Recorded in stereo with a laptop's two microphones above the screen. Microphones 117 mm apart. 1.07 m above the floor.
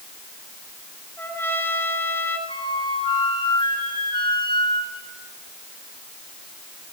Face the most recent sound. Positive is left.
turn(degrees=45)  # may be behind; listen again after turning